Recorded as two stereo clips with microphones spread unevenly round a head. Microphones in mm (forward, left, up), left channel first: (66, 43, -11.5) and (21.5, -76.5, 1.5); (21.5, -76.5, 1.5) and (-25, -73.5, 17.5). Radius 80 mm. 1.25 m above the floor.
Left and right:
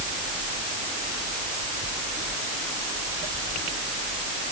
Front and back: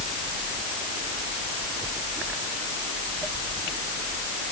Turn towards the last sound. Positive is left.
No sound to turn to.